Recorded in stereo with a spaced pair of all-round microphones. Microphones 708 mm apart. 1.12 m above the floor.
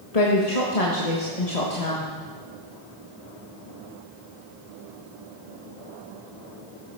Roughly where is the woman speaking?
Left.